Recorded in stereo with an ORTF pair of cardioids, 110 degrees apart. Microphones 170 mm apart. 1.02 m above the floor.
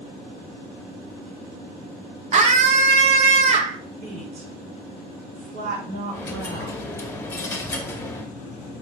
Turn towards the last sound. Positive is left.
turn(degrees=15)